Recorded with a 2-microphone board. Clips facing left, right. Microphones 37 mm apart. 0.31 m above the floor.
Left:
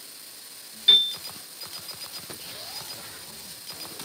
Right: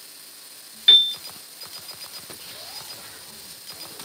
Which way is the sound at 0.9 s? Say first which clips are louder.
Right 4 dB; 35° right (ahead or behind).